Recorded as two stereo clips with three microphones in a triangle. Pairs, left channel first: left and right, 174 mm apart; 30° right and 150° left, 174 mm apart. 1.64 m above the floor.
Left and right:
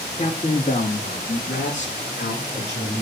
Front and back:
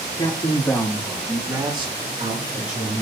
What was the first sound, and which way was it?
A man speaking, 35° left.